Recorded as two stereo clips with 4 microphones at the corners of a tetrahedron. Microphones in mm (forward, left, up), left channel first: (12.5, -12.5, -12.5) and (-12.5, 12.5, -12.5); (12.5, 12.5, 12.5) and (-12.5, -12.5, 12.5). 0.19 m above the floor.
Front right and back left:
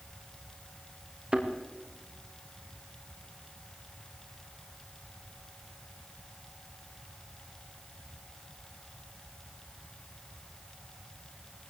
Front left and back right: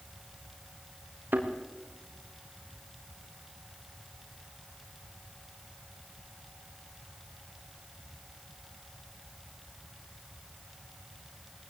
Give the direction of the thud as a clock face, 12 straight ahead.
6 o'clock.